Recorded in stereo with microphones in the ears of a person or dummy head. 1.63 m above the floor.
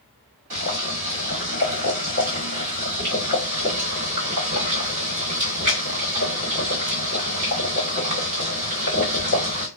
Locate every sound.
0.5 s boiling: 40° right (ahead or behind), 1.9 m